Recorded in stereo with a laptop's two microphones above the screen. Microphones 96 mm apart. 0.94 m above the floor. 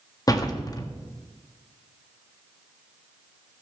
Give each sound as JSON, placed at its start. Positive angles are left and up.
{"t": 0.3, "sound": "a door slam", "side_deg": 40, "distance_m": 1.4}